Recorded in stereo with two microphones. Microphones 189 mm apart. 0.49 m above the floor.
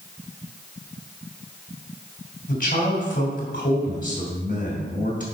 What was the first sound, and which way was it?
A man speaking, 50° left (ahead or behind).